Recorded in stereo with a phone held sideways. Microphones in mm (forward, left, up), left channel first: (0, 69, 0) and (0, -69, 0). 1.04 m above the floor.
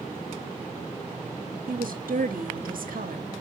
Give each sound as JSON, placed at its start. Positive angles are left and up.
{"t": 1.7, "sound": "a woman speaking", "side_deg": -80, "distance_m": 1.1}